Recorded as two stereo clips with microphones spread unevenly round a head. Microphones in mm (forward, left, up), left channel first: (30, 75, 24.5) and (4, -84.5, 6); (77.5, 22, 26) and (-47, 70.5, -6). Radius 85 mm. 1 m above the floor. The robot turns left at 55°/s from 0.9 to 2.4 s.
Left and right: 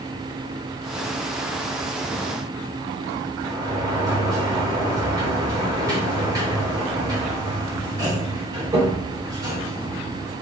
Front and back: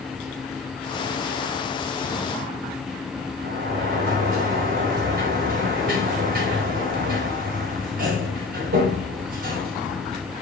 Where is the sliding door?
170° right, 3.5 m.